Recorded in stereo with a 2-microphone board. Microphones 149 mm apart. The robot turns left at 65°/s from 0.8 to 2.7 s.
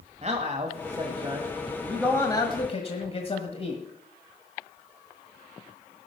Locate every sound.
0.2 s a man speaking: 110° right, 1.6 m; by 3.8 s 125° left, 1.6 m